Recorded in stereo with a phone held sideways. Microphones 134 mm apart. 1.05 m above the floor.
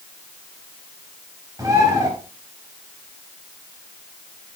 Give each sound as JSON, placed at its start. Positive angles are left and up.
{"t": 1.6, "sound": "a bird", "side_deg": -25, "distance_m": 3.5}